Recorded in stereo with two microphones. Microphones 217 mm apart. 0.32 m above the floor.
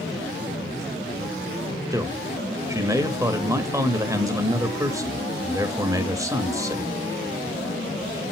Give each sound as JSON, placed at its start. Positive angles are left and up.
{"t": 1.9, "sound": "a man speaking", "side_deg": -15, "distance_m": 0.9}